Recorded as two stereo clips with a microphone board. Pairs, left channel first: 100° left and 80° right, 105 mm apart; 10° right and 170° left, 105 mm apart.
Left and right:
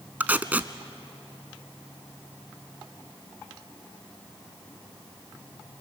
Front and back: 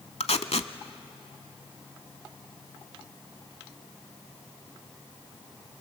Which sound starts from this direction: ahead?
Tape being pulled, at 0.2 s.